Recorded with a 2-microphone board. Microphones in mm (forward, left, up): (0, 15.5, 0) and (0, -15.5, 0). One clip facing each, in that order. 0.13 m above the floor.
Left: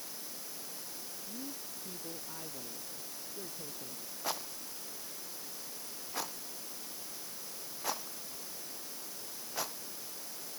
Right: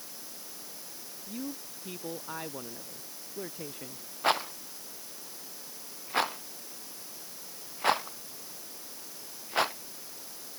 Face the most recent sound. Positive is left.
turn(degrees=-50)  # may be behind; listen again after turning